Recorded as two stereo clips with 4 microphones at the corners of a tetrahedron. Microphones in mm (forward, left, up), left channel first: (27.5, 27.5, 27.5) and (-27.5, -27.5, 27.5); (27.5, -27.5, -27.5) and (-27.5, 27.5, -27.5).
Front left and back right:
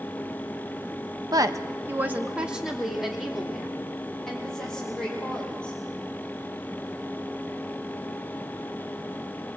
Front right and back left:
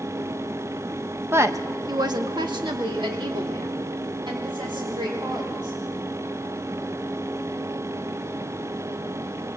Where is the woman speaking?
165° right, 1.4 m; by 5.8 s 125° left, 6.5 m.